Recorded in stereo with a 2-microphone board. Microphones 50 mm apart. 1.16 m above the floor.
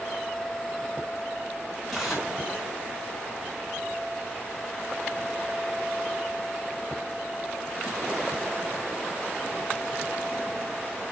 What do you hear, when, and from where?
1.9 s tearing paper: 5° left (ahead or behind), 4.5 m